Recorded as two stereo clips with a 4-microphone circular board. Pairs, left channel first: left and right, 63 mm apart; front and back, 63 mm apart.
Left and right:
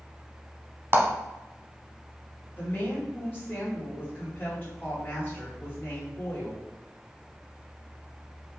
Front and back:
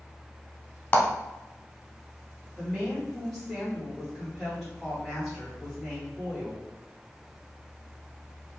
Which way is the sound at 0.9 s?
60° right.